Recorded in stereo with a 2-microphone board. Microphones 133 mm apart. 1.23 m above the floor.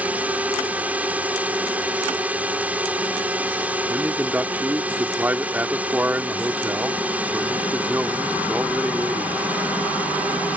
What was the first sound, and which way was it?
A drone, 10° right (ahead or behind).